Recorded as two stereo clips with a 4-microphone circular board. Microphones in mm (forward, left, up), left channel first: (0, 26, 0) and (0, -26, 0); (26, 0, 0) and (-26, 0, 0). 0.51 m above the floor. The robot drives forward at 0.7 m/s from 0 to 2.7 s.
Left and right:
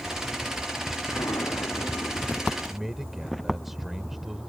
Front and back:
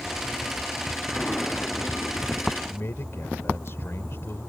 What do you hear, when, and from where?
1.1 s an explosion: 70° left; by 2.9 s 75° left
2.6 s a man speaking: 5° right